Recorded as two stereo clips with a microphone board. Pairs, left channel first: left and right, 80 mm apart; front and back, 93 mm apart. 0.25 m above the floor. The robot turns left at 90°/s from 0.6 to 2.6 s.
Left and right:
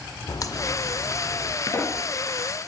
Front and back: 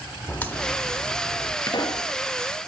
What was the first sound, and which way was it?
A crack, 65° left.